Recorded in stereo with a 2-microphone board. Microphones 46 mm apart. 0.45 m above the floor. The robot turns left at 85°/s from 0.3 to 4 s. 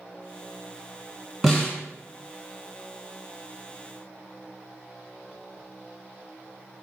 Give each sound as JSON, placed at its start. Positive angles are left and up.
{"t": 1.4, "sound": "a snare drum", "azimuth_deg": -175, "distance_m": 1.6}